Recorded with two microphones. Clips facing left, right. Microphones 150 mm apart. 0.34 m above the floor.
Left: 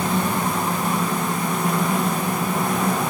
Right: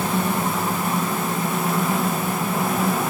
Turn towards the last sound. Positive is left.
No sound to turn to.